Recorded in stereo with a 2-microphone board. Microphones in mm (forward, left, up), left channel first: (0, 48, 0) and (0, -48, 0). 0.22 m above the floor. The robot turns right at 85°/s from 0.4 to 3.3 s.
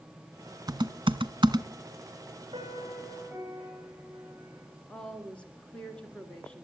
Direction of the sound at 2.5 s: 75° right.